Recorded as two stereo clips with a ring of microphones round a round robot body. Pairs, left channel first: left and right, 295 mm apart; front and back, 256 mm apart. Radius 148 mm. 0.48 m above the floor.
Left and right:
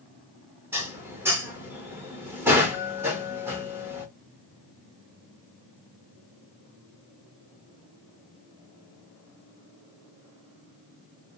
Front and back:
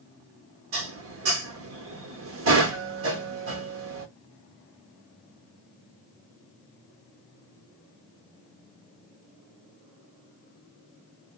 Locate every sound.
0.7 s dishes clattering: 170° right, 0.8 m